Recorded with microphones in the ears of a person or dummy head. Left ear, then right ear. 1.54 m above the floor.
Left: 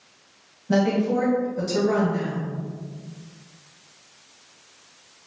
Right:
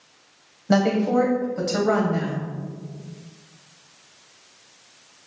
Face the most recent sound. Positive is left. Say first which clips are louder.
# right 2 dB
turn(degrees=-55)  # may be behind; listen again after turning